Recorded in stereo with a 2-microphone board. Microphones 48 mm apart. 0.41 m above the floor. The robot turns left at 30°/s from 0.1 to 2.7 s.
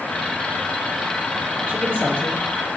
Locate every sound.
1.7 s a woman speaking: 45° right (ahead or behind), 6.5 m; by 2.4 s 65° right (ahead or behind), 6.5 m